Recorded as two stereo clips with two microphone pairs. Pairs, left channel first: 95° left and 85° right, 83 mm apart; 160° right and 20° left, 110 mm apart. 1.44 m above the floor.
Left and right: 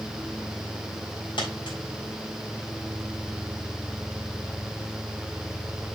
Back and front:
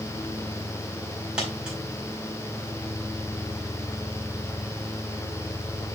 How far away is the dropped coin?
About 4.5 m.